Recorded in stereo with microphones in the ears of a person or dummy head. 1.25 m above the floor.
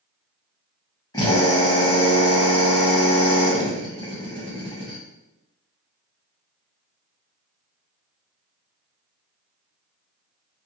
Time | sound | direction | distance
1.1 | a drill | 25° left (ahead or behind) | 0.9 m